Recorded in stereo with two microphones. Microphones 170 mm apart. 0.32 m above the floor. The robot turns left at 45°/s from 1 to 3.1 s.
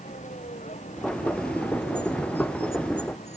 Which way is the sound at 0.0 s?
45° left (ahead or behind).